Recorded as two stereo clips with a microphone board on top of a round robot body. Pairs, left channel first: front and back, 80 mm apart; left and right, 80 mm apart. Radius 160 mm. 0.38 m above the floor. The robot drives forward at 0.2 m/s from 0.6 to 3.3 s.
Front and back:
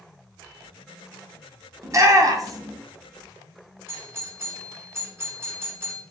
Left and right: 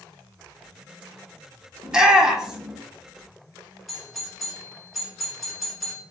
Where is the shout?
170° right, 1.3 m.